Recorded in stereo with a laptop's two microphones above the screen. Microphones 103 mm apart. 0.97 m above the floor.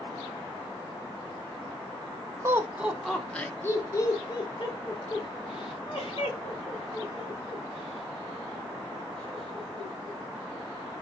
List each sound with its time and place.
2.4 s laughter: 25° right (ahead or behind), 0.8 m; by 10.2 s 75° left (ahead or behind), 3.5 m